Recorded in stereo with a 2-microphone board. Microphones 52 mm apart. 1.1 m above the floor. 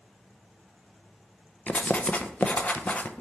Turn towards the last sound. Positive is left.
turn(degrees=30)  # may be behind; listen again after turning